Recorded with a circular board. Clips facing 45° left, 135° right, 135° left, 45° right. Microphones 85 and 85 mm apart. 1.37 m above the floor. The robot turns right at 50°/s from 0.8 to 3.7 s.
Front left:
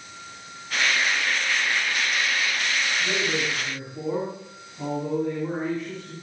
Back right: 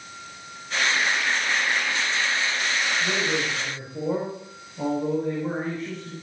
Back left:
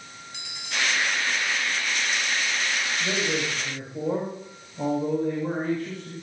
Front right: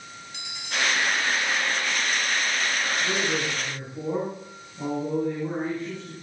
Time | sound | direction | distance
3.0 | a man speaking | 140° left | 6.5 m